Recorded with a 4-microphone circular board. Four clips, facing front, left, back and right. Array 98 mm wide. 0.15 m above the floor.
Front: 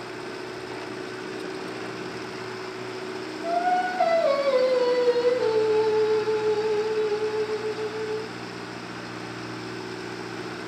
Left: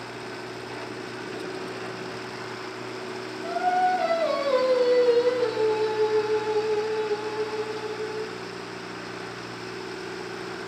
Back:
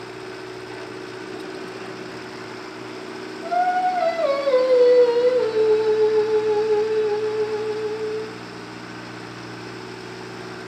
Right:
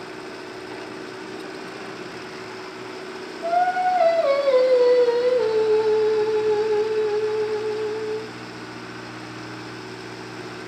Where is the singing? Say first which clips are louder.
Right 3 dB, back 4 dB; 120° right, 4 m.